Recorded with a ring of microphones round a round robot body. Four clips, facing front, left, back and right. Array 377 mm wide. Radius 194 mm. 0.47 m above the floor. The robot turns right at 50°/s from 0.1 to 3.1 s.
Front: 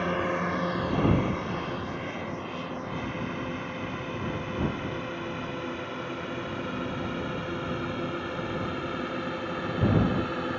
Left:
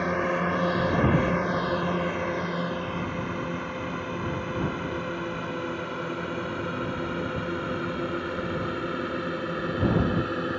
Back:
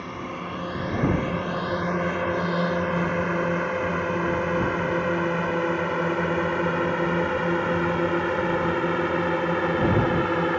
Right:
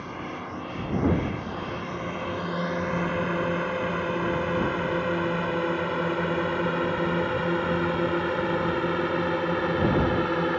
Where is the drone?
55° left; by 10.6 s 155° right.